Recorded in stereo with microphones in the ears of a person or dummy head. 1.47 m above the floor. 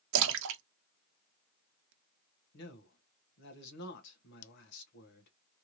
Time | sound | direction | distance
0.1 | a splash | 75° right (ahead or behind) | 0.8 m
2.5 | a man speaking | 65° left (ahead or behind) | 1.2 m
4.4 | scissors | 70° left (ahead or behind) | 0.6 m